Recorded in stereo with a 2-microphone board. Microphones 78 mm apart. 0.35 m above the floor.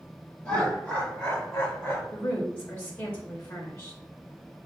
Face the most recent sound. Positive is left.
turn(degrees=25)  # may be behind; listen again after turning